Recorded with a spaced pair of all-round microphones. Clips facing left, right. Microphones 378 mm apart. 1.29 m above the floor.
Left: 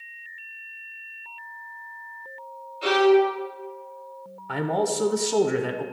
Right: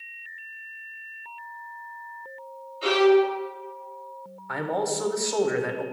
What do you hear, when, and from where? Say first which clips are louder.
2.8 s a violin: even; 5° right (ahead or behind), 1.0 m
4.5 s a man speaking: left 3 dB; 45° left (ahead or behind), 0.6 m